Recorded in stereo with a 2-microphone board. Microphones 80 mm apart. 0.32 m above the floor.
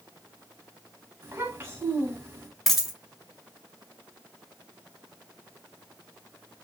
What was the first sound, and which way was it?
A child speaking, 30° right (ahead or behind).